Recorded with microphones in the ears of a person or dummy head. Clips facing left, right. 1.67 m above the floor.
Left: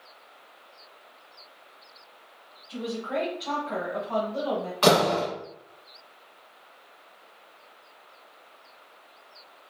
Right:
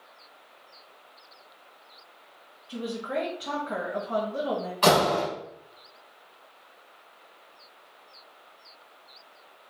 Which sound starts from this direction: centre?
A door slam, at 4.8 s.